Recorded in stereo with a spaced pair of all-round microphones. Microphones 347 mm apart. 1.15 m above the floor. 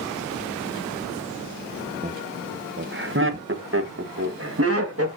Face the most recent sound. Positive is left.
turn(degrees=-40)  # may be behind; listen again after turning